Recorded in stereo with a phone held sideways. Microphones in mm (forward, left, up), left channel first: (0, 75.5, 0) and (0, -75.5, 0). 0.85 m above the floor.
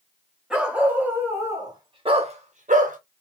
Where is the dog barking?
5° right (ahead or behind), 1.5 m; by 3.0 s 60° right (ahead or behind), 0.9 m.